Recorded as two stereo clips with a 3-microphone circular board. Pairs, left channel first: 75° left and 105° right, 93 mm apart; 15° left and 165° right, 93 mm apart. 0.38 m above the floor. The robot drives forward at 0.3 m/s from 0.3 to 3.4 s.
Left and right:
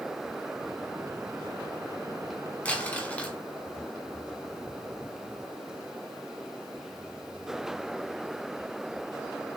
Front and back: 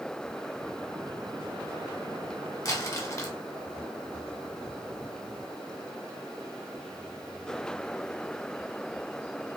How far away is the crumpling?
About 1.6 m.